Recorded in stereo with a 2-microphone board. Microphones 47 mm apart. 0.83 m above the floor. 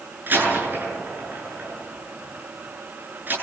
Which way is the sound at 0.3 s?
40° right (ahead or behind).